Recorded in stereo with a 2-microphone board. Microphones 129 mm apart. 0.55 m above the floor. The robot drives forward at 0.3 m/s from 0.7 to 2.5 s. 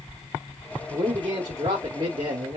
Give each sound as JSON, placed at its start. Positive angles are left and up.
{"t": 0.9, "sound": "a man speaking", "side_deg": -35, "distance_m": 1.0}